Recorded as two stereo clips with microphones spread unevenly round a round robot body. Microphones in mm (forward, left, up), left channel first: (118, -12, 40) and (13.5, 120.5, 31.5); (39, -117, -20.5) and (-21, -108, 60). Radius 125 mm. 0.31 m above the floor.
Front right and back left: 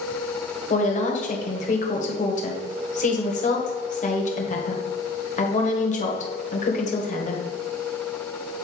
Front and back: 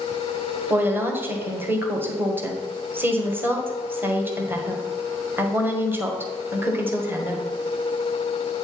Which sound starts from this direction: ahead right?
A woman speaking, at 0.7 s.